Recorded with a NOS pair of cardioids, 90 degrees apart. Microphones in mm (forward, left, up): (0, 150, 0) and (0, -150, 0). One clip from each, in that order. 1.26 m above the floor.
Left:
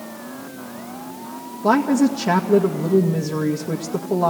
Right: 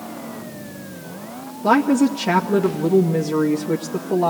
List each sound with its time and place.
1.6 s a woman speaking: 10° left, 2 m